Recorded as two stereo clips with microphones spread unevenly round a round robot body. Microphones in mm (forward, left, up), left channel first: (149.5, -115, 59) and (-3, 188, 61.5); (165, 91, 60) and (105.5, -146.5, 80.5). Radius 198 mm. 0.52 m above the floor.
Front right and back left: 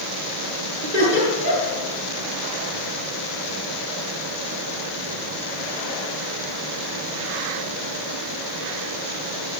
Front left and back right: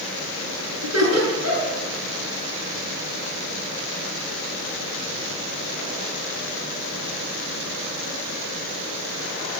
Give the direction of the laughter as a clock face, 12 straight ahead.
3 o'clock.